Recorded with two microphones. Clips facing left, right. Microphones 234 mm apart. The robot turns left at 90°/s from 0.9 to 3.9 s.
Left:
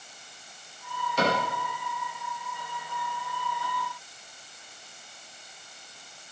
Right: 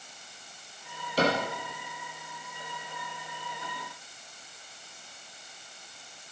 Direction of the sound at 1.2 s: 35° right (ahead or behind).